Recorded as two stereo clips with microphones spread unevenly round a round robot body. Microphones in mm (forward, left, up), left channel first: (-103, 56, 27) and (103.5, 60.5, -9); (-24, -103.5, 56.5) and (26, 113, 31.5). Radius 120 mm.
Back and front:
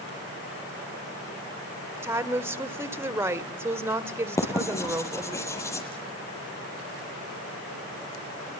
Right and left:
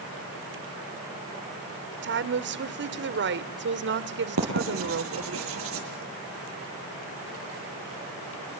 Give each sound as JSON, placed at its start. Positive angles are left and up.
{"t": 2.0, "sound": "a woman speaking", "azimuth_deg": 70, "distance_m": 1.6}
{"t": 4.4, "sound": "writing", "azimuth_deg": 105, "distance_m": 8.0}